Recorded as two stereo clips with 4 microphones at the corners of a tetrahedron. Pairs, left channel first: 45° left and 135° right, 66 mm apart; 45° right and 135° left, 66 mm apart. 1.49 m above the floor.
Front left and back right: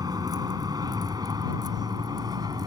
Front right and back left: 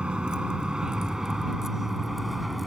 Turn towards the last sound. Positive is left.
turn(degrees=-135)